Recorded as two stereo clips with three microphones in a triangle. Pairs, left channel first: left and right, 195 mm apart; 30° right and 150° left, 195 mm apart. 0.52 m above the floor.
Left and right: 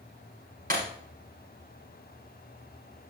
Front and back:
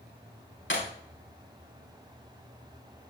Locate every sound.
0.7 s breaking glass: 45° right, 9.5 m